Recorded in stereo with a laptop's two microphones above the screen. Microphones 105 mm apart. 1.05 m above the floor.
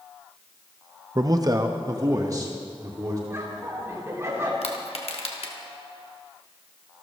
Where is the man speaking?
40° right (ahead or behind), 0.7 m; by 3.2 s 35° right (ahead or behind), 2.5 m.